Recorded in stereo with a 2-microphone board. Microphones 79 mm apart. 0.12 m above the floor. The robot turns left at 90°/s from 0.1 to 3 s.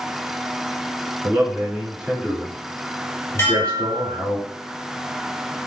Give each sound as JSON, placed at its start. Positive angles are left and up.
{"t": 1.2, "sound": "a man speaking", "side_deg": -25, "distance_m": 1.2}
{"t": 3.4, "sound": "dishes clattering", "side_deg": 35, "distance_m": 1.7}